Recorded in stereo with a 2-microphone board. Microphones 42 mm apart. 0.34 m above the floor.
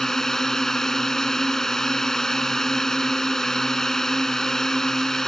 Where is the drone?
10° left (ahead or behind).